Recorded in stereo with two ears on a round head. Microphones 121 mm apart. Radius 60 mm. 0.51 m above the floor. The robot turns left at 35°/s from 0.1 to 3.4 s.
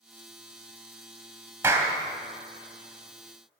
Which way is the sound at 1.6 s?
15° right (ahead or behind).